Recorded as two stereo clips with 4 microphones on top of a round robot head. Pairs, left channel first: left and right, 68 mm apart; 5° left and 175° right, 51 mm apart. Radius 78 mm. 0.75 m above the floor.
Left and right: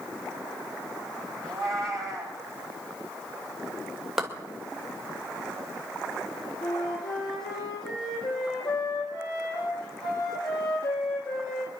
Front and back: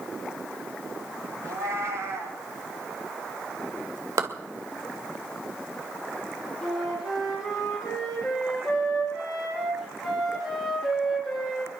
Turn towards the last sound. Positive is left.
turn(degrees=100)